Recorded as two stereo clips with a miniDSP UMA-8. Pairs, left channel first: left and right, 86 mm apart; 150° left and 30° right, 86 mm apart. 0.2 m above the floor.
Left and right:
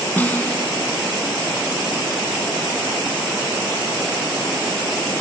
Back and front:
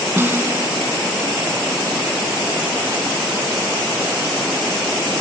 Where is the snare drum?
25° left, 1.3 m.